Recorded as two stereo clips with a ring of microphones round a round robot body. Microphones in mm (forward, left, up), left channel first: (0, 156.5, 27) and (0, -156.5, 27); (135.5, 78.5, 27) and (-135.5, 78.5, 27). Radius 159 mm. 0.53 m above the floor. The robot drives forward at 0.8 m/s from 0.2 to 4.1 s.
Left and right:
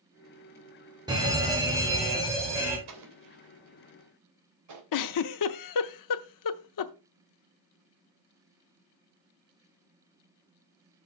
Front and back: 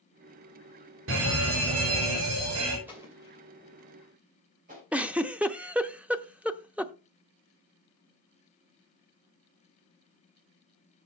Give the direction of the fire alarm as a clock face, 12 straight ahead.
5 o'clock.